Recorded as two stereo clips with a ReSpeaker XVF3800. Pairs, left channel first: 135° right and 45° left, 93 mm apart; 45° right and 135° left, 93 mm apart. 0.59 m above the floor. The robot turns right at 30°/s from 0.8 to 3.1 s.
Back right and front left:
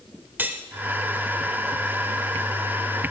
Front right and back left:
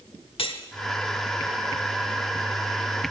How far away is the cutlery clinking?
About 1.0 m.